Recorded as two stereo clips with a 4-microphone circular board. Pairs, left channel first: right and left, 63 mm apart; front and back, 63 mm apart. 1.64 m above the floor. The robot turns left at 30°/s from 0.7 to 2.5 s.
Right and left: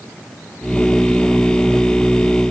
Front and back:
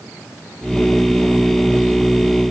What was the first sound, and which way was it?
Only background noise.